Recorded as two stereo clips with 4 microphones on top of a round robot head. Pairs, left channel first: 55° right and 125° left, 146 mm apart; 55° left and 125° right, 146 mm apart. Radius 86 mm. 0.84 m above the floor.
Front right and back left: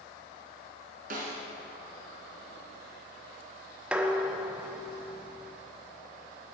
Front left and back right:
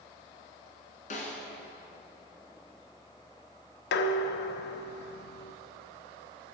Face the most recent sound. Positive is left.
turn(degrees=45)